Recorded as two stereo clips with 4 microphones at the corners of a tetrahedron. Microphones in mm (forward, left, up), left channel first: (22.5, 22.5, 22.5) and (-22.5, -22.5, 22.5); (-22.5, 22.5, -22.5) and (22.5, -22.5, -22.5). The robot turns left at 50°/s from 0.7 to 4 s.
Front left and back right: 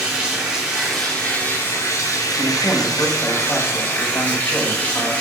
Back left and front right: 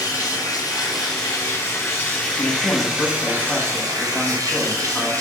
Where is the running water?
145° left, 3 m; by 5.2 s 20° right, 3 m.